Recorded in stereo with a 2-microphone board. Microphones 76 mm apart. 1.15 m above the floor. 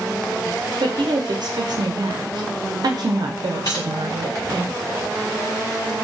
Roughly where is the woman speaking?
Right.